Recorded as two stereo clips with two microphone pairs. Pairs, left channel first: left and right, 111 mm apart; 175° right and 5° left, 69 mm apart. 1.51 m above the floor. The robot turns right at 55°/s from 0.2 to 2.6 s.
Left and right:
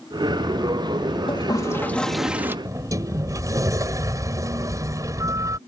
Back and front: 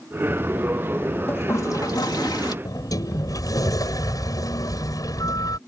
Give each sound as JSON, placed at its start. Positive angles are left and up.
{"t": 1.3, "sound": "a toilet flushing", "azimuth_deg": 135}
{"t": 2.6, "sound": "a sliding door", "azimuth_deg": -150}